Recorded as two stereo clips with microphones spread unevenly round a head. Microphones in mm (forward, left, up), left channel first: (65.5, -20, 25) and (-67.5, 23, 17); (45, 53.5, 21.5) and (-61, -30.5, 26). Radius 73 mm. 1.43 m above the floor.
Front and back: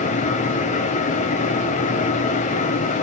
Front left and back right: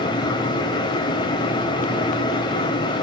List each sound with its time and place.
0.0 s a fan: 10° right, 1.0 m